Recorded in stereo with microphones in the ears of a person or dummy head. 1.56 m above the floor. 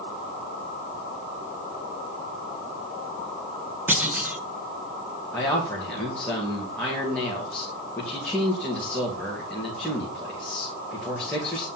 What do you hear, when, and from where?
3.9 s a clunk: 10° right (ahead or behind), 1.2 m
5.3 s a man speaking: 5° left (ahead or behind), 2.5 m